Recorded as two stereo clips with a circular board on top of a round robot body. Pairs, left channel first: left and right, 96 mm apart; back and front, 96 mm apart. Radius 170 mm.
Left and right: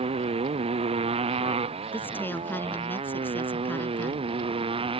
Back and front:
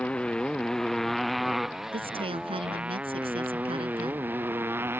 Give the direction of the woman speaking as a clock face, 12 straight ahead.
11 o'clock.